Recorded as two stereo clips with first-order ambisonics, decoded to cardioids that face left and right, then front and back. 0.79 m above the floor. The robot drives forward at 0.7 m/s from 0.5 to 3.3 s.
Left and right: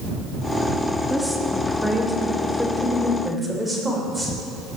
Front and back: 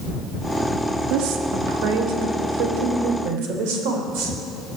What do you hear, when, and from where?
1.1 s a woman speaking: straight behind, 1.6 m